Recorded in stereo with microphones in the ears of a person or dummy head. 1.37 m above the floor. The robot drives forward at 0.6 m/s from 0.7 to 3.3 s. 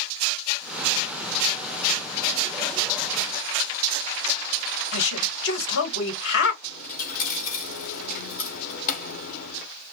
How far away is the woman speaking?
About 1.6 m.